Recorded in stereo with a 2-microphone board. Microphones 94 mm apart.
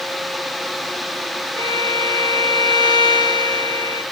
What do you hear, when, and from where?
1.6 s a violin: 50° left (ahead or behind), 3 m